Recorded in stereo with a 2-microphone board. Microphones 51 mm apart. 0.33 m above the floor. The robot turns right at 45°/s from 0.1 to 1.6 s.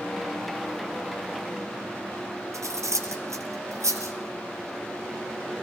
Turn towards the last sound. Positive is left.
turn(degrees=-85)